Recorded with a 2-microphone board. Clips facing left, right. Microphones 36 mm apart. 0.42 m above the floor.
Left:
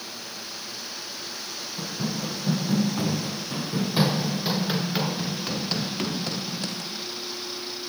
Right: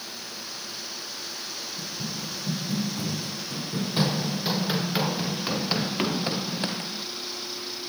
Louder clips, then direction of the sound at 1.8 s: Left 7 dB; 60° left (ahead or behind).